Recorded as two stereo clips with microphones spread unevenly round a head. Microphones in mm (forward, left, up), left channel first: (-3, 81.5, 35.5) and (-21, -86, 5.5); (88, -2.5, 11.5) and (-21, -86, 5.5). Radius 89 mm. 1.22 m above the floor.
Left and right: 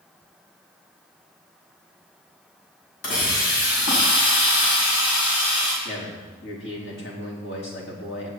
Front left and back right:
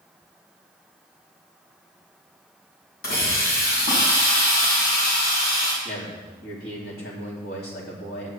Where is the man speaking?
55° left, 3.5 m.